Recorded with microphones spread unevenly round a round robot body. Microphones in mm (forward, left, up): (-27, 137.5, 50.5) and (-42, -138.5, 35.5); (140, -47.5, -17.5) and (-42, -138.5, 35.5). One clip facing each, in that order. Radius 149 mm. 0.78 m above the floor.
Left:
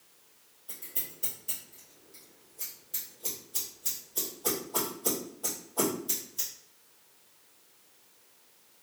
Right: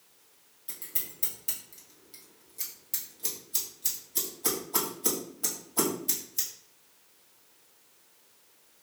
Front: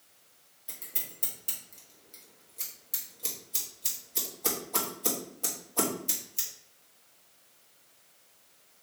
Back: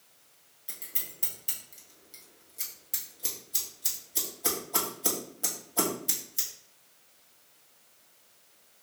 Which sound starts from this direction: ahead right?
Scissors, at 0.7 s.